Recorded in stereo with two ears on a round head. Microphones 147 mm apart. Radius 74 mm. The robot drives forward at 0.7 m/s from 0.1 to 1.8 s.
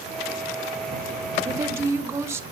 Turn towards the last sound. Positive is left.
turn(degrees=-15)  # may be behind; listen again after turning